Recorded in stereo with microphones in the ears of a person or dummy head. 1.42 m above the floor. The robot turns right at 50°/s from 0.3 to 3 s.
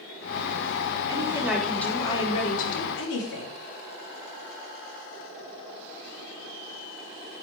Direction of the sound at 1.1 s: 25° right.